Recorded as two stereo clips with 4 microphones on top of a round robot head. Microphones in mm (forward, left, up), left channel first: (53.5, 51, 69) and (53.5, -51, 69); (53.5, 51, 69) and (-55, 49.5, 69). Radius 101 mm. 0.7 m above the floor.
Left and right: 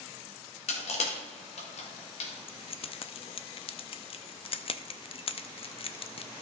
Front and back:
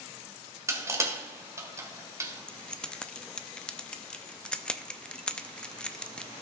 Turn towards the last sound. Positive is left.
turn(degrees=80)